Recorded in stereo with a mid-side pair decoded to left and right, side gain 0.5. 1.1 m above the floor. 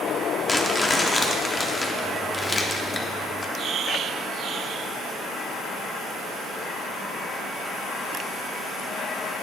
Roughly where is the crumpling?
Ahead left.